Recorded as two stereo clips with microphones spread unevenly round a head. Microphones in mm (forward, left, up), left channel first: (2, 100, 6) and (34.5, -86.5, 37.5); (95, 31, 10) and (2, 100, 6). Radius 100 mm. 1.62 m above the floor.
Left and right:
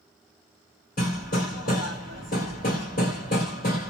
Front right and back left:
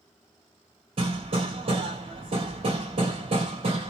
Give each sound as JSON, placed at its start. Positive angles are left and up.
{"t": 1.0, "sound": "hammering", "azimuth_deg": 145, "distance_m": 1.9}